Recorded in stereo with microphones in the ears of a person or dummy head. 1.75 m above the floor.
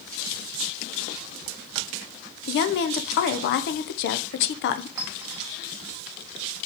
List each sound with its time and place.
2.5 s a woman speaking: 60° left (ahead or behind), 0.9 m
5.0 s a clink: 20° right (ahead or behind), 0.6 m